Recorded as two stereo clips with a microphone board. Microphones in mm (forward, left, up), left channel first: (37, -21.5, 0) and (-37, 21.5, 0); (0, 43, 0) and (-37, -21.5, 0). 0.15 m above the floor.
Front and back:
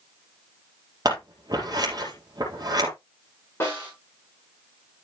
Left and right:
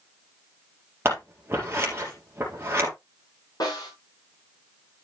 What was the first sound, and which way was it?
Scissors, 175° right.